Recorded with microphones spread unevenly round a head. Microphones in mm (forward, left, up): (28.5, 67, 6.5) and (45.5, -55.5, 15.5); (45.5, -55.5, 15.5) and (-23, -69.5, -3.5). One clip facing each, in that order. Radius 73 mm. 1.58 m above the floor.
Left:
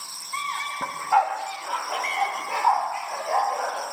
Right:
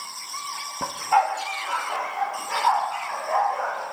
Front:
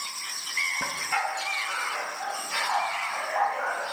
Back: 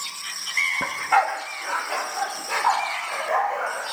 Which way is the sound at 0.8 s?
105° right.